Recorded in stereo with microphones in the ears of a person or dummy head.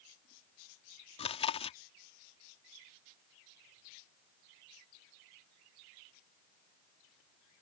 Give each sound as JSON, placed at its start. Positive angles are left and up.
{"t": 1.2, "sound": "chewing", "side_deg": 30}